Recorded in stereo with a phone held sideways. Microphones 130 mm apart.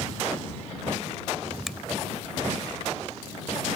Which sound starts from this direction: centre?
A finger snap, at 1.7 s.